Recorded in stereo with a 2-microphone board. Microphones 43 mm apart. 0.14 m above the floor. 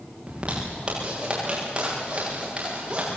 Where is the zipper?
25° right (ahead or behind), 9.5 m.